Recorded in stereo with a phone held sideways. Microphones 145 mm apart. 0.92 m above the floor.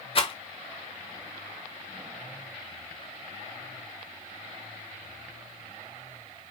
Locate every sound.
0.1 s a rattle: 40° left (ahead or behind), 0.8 m